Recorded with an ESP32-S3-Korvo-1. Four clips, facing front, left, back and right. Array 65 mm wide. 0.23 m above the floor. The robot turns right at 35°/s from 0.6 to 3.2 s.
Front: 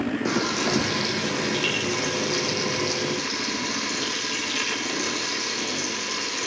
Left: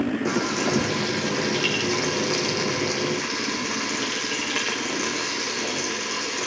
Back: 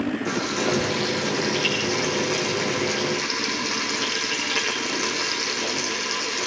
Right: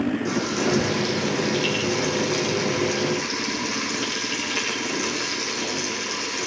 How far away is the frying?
About 9 m.